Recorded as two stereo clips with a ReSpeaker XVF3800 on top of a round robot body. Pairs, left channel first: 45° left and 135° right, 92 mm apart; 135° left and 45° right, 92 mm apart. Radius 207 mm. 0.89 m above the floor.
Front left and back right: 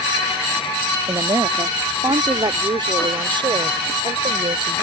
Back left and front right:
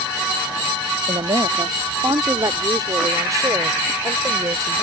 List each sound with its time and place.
1.1 s a woman speaking: 85° right; by 4.8 s 100° right